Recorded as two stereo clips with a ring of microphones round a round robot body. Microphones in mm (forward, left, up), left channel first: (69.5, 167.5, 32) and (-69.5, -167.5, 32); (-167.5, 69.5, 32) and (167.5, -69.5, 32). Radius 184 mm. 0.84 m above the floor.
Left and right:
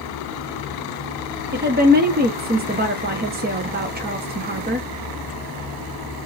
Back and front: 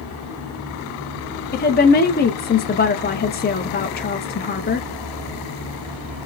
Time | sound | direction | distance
1.5 | a woman speaking | 160° right | 0.6 m